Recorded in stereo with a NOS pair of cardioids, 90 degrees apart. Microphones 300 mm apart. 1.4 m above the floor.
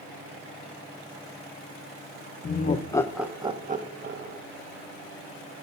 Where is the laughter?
35° left, 0.9 m; by 4.4 s 45° right, 1.4 m.